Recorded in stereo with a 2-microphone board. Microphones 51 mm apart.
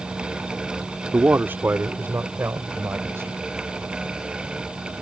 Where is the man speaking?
40° right (ahead or behind); by 3.4 s 50° right (ahead or behind).